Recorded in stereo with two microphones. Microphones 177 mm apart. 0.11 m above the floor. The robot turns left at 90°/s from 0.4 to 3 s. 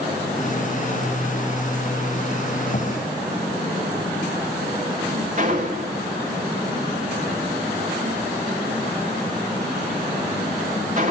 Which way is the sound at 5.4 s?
45° right (ahead or behind).